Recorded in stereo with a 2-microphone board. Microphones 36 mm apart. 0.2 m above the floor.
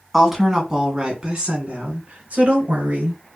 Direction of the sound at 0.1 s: Centre (ahead or behind).